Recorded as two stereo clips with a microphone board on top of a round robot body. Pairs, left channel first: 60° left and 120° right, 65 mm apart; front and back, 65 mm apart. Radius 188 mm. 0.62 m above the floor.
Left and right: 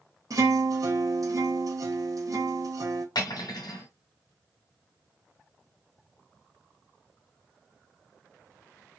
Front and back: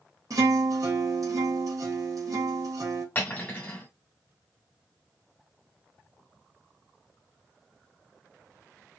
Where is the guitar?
150° right, 2.5 m.